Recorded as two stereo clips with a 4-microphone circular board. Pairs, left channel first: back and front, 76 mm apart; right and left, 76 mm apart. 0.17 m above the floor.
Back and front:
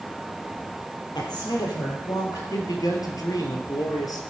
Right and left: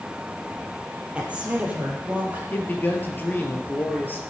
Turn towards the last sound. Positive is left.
turn(degrees=-150)